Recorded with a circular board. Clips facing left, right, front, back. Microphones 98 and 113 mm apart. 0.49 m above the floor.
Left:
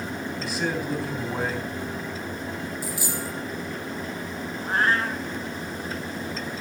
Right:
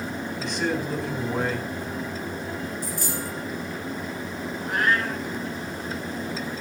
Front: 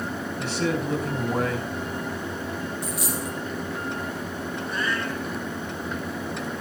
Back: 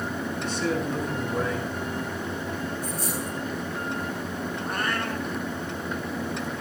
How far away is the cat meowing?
About 2.0 m.